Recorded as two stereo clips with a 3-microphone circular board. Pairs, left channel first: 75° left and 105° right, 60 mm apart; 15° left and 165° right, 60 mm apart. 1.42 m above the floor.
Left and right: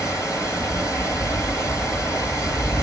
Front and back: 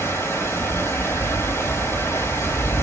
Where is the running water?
50° left, 3 m.